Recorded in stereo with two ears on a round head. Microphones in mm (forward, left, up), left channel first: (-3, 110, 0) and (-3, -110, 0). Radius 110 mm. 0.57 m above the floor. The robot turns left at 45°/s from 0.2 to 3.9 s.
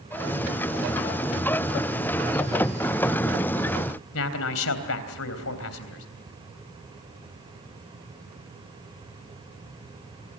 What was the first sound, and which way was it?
A man speaking, 60° left (ahead or behind).